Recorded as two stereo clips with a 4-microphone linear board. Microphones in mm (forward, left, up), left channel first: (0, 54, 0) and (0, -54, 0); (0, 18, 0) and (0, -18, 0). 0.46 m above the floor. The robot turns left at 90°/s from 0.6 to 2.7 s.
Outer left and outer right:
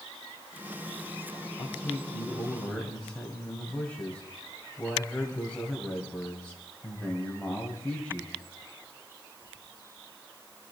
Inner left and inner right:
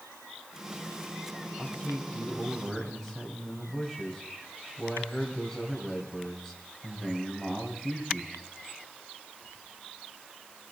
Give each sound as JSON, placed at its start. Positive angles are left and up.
{"t": 1.6, "sound": "a man speaking", "azimuth_deg": 110, "distance_m": 2.5}